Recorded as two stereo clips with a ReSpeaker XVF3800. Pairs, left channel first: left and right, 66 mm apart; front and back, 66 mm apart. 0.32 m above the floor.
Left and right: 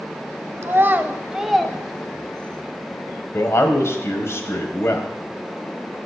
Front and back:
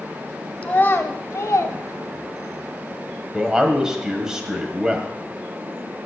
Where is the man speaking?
105° left, 1.4 m.